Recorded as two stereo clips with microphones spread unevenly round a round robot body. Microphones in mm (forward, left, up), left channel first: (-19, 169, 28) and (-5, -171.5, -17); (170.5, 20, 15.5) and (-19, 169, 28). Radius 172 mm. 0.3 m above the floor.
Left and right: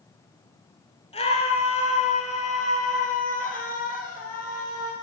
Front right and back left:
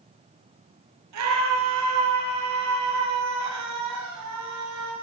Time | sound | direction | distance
1.1 | a scream | 165° left | 5 m